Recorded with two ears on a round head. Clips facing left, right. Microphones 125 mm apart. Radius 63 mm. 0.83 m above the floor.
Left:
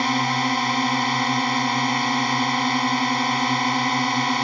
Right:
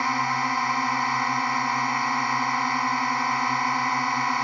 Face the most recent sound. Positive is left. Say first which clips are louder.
# left 3 dB
turn(degrees=30)  # may be behind; listen again after turning